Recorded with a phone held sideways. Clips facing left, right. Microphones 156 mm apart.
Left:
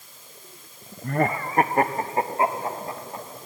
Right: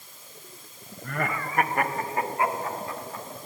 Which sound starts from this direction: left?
Laughter, at 1.0 s.